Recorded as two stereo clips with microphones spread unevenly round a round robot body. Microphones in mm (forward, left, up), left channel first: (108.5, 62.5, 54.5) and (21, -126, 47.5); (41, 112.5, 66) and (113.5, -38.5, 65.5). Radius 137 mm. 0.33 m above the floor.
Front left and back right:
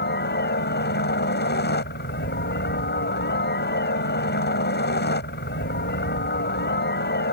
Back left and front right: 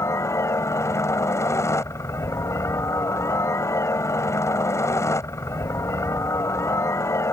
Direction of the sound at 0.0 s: 45° left.